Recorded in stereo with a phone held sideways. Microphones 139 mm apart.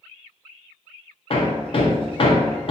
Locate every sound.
1.3 s hammering: 45° left (ahead or behind), 0.7 m